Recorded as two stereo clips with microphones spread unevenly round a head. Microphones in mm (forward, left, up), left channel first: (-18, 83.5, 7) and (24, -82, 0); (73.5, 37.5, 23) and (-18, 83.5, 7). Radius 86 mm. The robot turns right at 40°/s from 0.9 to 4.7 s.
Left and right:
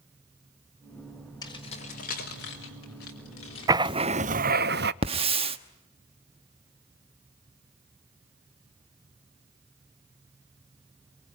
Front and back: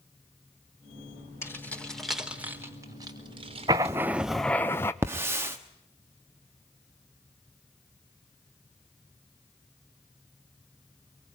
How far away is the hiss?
About 1.1 m.